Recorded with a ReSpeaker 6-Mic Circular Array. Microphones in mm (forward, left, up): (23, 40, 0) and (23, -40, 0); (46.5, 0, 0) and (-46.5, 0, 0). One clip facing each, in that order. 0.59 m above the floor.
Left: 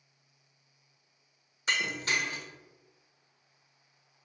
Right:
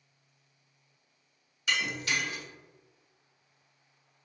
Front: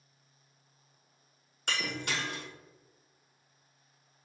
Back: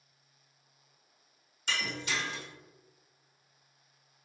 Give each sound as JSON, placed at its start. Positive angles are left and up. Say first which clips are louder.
{"t": 1.7, "sound": "breaking glass", "louder": "even, even", "azimuth_deg": 30, "distance_m": 1.0}